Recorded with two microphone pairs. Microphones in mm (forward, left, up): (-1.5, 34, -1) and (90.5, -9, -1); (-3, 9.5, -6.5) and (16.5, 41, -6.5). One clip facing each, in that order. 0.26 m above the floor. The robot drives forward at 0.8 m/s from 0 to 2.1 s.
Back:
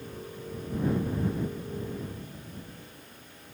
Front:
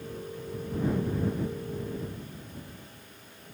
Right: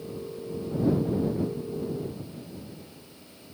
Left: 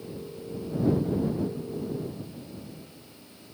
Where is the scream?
I don't hear a scream.